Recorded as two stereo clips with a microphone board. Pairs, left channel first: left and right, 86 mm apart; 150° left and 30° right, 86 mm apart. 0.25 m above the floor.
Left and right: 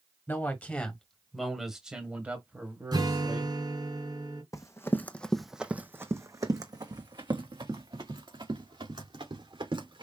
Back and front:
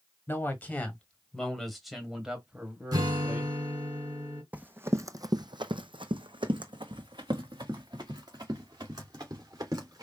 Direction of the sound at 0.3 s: 125° left.